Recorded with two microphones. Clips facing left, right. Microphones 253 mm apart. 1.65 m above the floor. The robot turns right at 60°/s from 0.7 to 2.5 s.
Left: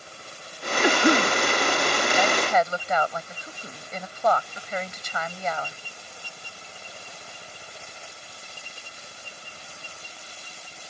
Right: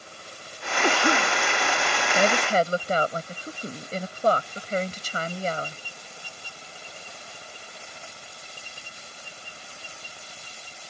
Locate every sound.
0.8 s a cough: 10° left; by 1.4 s 45° left
2.1 s a woman speaking: 55° right (ahead or behind); by 5.8 s 35° right (ahead or behind)